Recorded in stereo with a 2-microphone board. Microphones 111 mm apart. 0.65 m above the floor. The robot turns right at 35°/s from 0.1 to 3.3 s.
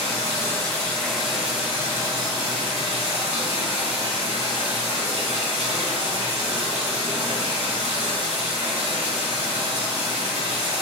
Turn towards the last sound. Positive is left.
turn(degrees=-105)